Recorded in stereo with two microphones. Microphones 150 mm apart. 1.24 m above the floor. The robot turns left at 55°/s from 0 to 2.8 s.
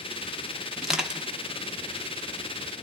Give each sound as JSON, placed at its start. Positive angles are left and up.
{"t": 0.8, "sound": "crushing", "side_deg": 0, "distance_m": 0.8}